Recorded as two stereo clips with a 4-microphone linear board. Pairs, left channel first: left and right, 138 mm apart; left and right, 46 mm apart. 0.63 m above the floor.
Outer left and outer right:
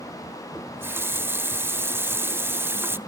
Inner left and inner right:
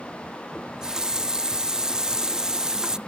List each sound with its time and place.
0.6 s a running tap: 15° right (ahead or behind), 0.5 m